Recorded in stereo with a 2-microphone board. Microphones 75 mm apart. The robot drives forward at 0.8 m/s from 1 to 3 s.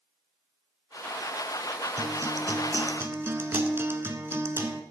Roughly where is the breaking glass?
No breaking glass in this recording.